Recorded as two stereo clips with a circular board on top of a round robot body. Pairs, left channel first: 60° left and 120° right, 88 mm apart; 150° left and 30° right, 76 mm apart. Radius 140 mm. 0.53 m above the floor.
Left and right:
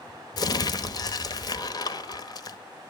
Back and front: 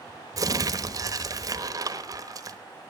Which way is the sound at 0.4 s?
15° left.